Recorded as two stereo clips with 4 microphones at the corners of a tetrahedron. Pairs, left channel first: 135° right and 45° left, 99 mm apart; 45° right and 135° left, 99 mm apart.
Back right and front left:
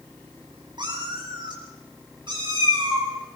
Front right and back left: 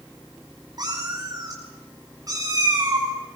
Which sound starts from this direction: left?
A cat meowing, at 0.8 s.